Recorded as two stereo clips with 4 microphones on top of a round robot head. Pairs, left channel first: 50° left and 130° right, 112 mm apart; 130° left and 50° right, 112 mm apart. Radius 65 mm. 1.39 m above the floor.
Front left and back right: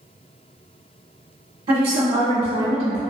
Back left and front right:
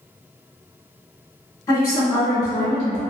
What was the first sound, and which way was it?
A woman speaking, 170° right.